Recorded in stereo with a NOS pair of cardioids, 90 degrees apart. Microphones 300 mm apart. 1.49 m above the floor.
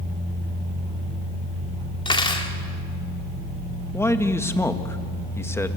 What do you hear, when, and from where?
2.0 s cutlery clinking: 15° left, 2.5 m
3.9 s a man speaking: 10° left, 1.9 m